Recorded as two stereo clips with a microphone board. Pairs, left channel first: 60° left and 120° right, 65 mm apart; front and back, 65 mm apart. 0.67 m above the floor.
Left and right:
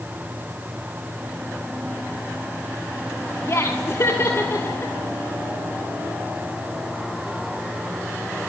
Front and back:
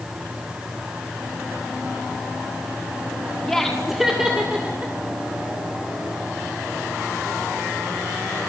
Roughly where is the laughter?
Left.